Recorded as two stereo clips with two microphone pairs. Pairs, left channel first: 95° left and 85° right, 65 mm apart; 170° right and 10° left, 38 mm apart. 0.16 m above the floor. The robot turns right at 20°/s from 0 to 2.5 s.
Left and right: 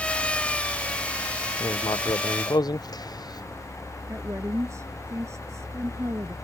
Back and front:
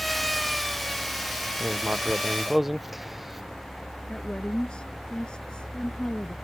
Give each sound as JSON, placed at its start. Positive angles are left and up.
{"t": 1.6, "sound": "writing", "azimuth_deg": 75}
{"t": 4.1, "sound": "a woman speaking", "azimuth_deg": -110}